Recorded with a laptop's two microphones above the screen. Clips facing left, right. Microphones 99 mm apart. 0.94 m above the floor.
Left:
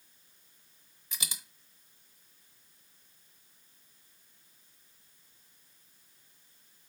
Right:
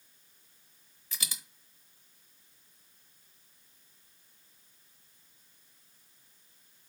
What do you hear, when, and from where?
1.1 s a dropped coin: 20° left (ahead or behind), 0.8 m